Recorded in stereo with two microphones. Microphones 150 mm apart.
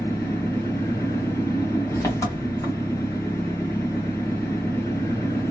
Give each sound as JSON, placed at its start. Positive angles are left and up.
{"t": 0.0, "sound": "an engine running", "side_deg": 20, "distance_m": 2.5}